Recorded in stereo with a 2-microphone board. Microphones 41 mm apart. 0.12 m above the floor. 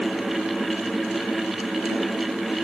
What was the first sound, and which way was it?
Only background noise.